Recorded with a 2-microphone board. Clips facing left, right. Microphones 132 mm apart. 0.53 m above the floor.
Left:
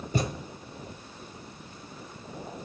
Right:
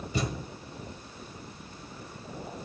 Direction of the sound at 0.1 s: 50° left (ahead or behind).